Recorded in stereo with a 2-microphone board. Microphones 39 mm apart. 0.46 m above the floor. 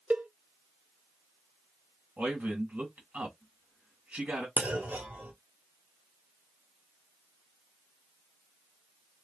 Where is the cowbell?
45° right (ahead or behind), 0.6 m.